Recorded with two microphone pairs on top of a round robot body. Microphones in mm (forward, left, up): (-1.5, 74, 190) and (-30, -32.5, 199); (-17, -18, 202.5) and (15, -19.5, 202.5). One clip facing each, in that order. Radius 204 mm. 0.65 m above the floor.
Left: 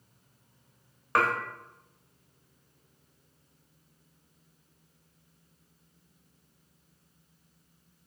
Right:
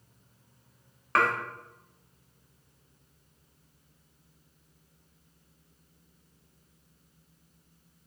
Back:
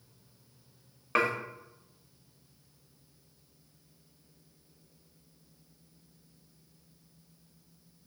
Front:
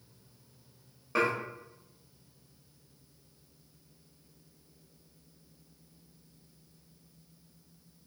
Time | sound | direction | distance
1.1 | dishes clattering | 155° left | 1.0 m